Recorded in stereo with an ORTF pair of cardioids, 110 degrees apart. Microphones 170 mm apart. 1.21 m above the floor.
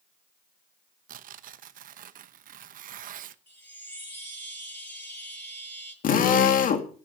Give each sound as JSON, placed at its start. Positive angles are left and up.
{"t": 1.1, "sound": "tearing paper", "azimuth_deg": -55, "distance_m": 1.0}
{"t": 3.5, "sound": "a chime", "azimuth_deg": 10, "distance_m": 9.5}
{"t": 6.0, "sound": "a drill", "azimuth_deg": 55, "distance_m": 2.5}